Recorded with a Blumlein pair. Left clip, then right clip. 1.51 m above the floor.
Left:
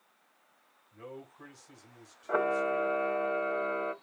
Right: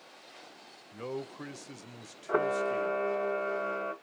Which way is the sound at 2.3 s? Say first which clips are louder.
Even; straight ahead.